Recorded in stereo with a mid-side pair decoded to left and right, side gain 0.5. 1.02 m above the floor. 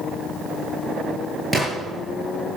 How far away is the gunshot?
About 5.5 m.